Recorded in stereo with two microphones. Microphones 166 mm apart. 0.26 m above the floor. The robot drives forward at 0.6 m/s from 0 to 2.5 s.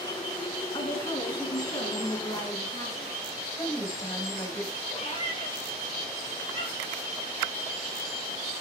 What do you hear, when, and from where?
0.7 s a woman speaking: 30° left (ahead or behind), 2.5 m; by 3.1 s 20° left (ahead or behind), 3.5 m
3.6 s a woman speaking: 20° left (ahead or behind), 1.4 m
4.9 s a cat meowing: 40° left (ahead or behind), 4 m